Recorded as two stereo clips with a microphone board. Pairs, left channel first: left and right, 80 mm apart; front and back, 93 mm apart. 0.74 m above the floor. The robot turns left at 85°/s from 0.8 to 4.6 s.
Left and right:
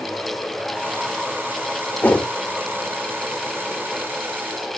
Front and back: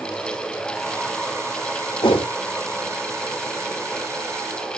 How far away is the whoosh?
About 1.2 m.